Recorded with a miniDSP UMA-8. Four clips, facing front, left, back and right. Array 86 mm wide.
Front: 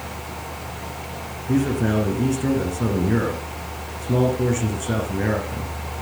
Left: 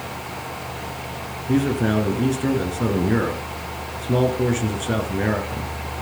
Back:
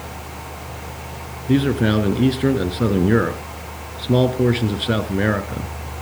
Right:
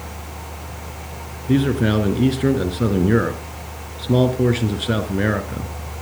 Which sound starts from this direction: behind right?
A man speaking, at 1.5 s.